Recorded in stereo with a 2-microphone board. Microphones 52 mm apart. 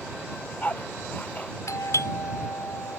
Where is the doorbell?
75° left (ahead or behind).